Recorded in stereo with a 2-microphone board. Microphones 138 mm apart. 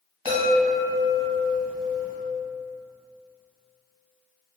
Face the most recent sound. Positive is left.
turn(degrees=-45)  # may be behind; listen again after turning